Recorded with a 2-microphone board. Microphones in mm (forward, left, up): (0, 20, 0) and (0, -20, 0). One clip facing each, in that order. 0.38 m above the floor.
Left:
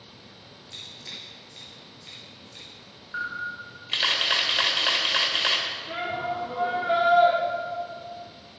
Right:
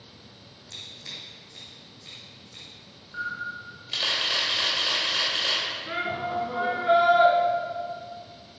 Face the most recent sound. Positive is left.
turn(degrees=-75)  # may be behind; listen again after turning